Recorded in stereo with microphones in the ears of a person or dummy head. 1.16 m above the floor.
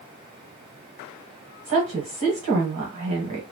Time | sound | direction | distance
1.6 | a woman speaking | 35° right (ahead or behind) | 1.2 m